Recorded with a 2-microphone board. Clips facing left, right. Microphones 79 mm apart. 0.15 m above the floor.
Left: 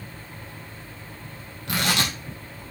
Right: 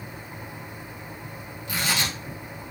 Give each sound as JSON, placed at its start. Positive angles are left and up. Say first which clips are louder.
{"t": 1.7, "sound": "tearing paper", "louder": "left 3 dB", "side_deg": 70, "distance_m": 3.0}